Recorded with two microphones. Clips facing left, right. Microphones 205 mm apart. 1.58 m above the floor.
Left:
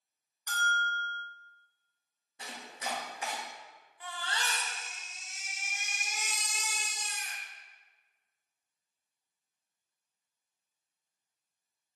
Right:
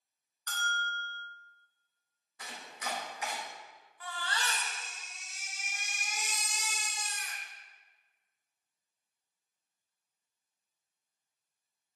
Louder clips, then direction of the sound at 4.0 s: Even; 20° left (ahead or behind).